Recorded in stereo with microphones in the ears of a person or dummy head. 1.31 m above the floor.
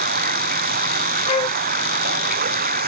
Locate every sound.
0.0 s running water: 45° right (ahead or behind)
1.3 s a flute: 30° left (ahead or behind)